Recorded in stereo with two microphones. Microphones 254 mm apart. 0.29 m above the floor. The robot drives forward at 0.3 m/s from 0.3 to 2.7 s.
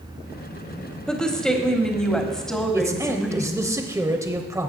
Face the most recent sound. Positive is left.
turn(degrees=-10)  # may be behind; listen again after turning